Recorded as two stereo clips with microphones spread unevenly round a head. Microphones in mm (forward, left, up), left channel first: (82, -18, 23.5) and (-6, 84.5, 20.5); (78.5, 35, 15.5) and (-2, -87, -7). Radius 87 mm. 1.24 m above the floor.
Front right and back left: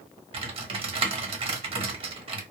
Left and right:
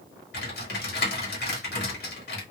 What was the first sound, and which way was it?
Typing on a keyboard, 85° left.